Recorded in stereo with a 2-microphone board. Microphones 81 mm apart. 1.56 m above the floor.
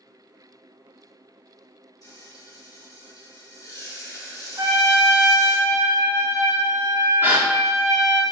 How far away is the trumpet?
About 1.0 m.